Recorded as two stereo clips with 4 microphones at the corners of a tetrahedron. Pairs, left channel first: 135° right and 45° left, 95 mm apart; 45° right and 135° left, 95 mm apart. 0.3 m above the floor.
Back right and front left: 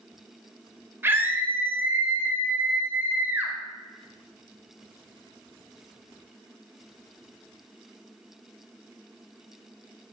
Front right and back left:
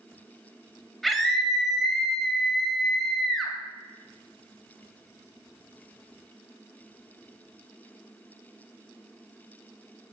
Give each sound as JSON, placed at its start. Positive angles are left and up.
{"t": 1.0, "sound": "a scream", "azimuth_deg": 40, "distance_m": 1.5}